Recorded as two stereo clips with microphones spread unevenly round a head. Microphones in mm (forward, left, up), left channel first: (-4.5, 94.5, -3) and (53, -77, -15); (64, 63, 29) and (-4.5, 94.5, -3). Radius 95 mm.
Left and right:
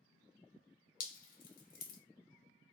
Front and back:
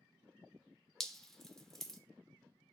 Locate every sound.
1.0 s dripping: 85° left, 0.6 m